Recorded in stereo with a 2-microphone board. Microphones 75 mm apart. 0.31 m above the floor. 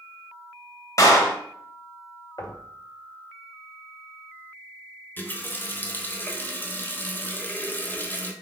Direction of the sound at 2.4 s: 50° left (ahead or behind).